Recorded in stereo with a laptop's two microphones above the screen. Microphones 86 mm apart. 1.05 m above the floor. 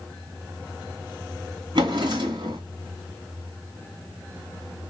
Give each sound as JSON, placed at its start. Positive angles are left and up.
{"t": 1.8, "sound": "a drawer", "side_deg": -65, "distance_m": 1.9}